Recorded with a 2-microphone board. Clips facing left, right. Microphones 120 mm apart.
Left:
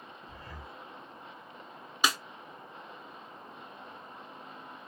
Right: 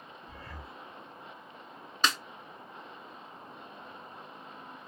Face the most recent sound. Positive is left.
turn(degrees=10)  # may be behind; listen again after turning